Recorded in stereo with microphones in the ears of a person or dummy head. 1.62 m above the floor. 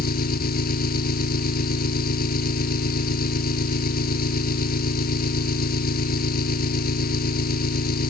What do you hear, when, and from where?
0.0 s an engine running: 55° left (ahead or behind)